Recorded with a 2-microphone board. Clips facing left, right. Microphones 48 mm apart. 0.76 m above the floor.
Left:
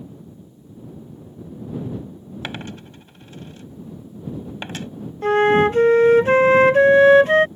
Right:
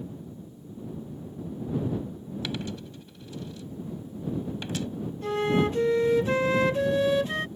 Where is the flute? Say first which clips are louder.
Left 10 dB; 50° left (ahead or behind).